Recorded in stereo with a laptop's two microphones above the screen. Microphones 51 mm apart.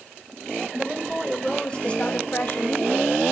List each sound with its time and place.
0.7 s a woman speaking: 15° right (ahead or behind), 1.1 m; by 3.2 s 50° left (ahead or behind), 1.8 m